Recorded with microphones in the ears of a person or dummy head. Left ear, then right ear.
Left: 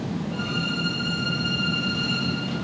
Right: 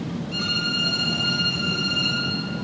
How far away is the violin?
About 6 m.